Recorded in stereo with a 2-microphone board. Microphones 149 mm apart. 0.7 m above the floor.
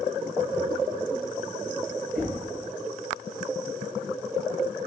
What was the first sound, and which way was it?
Knocking, 80° right.